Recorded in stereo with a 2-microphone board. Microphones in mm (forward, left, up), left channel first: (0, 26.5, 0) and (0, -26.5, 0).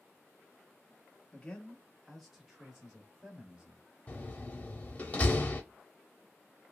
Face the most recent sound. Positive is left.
turn(degrees=30)  # may be behind; listen again after turning